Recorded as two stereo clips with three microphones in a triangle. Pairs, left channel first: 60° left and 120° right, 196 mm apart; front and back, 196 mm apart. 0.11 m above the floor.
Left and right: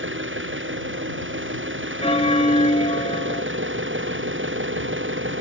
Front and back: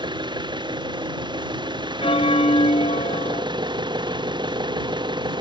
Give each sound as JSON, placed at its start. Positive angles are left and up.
{"t": 0.0, "sound": "an engine running", "azimuth_deg": -115}
{"t": 2.0, "sound": "a bell", "azimuth_deg": 30}